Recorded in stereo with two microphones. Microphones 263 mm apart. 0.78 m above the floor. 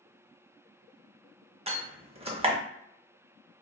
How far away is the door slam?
About 0.6 m.